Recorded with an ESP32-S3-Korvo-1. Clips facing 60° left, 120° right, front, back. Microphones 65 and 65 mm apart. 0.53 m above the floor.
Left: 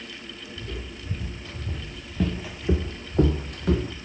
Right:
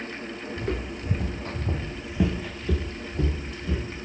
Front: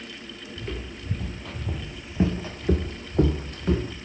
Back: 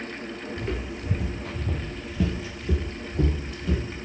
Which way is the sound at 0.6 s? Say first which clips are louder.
Right 8 dB, back 2 dB; 105° right.